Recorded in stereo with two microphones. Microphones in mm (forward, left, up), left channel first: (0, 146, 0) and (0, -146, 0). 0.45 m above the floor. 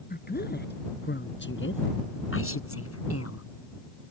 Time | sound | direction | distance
0.1 | a woman speaking | 30° left (ahead or behind) | ?